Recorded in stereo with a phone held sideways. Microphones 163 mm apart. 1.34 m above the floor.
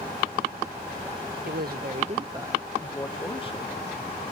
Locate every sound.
1.4 s a man speaking: 75° right (ahead or behind); by 4.1 s 45° left (ahead or behind)